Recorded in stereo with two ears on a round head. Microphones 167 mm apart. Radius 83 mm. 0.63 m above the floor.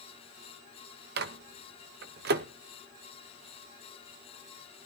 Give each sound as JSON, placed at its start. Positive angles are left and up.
{"t": 1.2, "sound": "a microwave", "side_deg": -60, "distance_m": 0.8}